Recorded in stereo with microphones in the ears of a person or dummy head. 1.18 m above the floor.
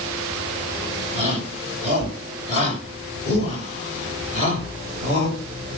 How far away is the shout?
About 4.5 m.